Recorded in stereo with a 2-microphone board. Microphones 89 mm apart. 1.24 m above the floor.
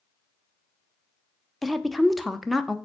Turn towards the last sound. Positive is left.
turn(degrees=0)  # may be behind; listen again after turning